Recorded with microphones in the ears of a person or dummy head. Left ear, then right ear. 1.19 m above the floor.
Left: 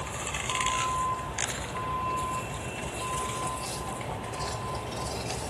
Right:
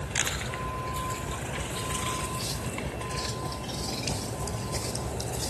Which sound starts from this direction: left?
A vehicle, at 0.0 s.